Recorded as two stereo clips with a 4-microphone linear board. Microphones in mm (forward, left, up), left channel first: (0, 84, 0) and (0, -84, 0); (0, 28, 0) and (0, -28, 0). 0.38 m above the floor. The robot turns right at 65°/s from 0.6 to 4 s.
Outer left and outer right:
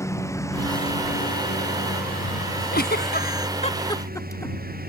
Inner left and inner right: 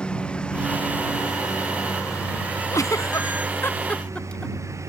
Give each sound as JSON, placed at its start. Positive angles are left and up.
{"t": 0.0, "sound": "a lawn mower", "side_deg": 15}
{"t": 2.7, "sound": "a giggle", "side_deg": 70}